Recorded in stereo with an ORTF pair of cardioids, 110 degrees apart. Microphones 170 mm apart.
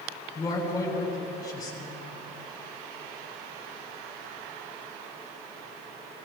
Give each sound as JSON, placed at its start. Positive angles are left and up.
{"t": 0.3, "sound": "a man speaking", "azimuth_deg": 20, "distance_m": 7.0}